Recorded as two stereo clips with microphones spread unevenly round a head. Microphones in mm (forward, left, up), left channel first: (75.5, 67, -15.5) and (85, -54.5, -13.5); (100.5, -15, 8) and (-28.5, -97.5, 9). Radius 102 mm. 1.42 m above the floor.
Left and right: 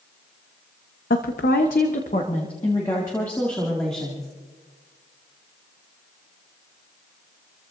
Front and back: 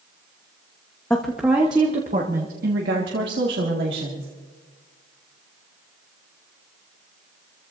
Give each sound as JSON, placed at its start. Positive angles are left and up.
{"t": 1.1, "sound": "a woman speaking", "azimuth_deg": 115, "distance_m": 0.8}